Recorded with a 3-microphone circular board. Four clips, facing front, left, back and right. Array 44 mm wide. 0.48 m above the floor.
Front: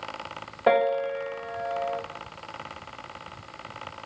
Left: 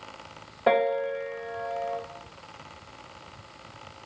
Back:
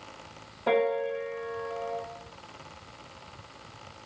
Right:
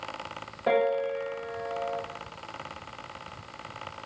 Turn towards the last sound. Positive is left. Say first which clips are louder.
# left 2 dB, front 4 dB
turn(degrees=30)